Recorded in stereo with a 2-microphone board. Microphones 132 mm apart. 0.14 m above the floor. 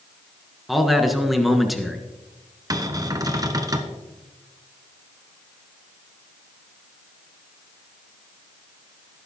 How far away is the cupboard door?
About 1.2 m.